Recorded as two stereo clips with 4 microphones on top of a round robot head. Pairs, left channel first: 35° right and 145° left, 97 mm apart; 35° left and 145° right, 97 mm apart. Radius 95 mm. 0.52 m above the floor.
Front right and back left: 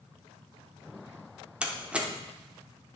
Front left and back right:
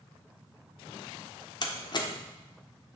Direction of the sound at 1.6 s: 65° left.